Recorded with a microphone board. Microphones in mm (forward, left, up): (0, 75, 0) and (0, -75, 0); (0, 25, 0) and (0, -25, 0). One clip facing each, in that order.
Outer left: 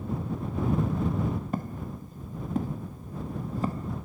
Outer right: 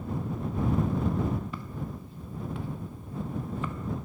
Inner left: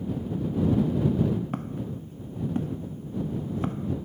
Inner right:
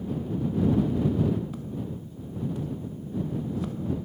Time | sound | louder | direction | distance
1.5 | footsteps | outer left 4 dB, inner left 2 dB | 45° left (ahead or behind) | ?